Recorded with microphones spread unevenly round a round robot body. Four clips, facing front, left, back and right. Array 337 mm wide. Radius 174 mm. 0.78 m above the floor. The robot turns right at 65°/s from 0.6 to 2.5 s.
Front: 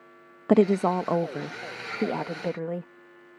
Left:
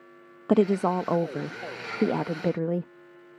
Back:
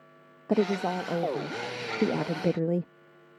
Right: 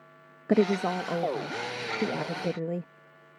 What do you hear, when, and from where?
0.5 s a woman speaking: 15° left; by 2.9 s 140° left